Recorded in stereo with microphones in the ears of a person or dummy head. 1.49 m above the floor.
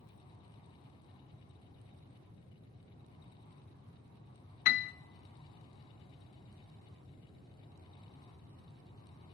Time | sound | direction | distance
4.7 | a piano | 45° left (ahead or behind) | 0.5 m